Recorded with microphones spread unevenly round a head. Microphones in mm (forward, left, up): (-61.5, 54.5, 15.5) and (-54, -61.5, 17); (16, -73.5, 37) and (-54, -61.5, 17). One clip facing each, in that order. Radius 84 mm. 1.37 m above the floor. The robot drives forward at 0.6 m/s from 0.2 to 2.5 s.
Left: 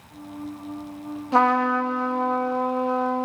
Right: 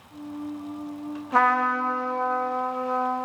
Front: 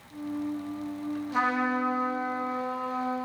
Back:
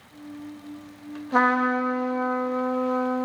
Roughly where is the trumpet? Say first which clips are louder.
Left 2 dB, back 7 dB; behind left.